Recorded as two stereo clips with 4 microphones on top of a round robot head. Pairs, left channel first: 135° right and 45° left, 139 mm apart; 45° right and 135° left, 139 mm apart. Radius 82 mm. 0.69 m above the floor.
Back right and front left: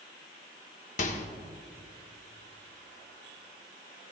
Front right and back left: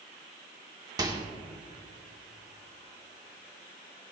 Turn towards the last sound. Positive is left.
turn(degrees=-165)